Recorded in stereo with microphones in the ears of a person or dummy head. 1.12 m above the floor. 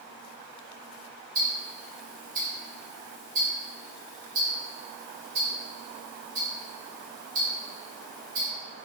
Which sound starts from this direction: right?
Ticking, at 1.4 s.